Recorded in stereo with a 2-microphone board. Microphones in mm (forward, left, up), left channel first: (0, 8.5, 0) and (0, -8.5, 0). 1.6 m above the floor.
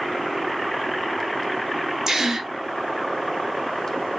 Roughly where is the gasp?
Right.